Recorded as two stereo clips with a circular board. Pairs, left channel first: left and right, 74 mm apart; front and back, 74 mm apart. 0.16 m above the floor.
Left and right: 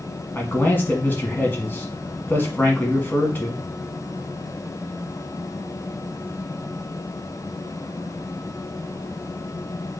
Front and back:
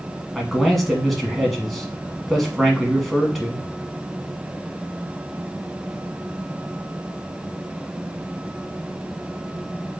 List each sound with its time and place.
0.3 s a man speaking: 85° left, 1.2 m